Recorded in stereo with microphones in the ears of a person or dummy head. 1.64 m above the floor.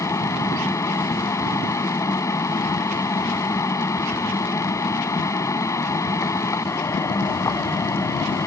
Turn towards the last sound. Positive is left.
turn(degrees=15)  # may be behind; listen again after turning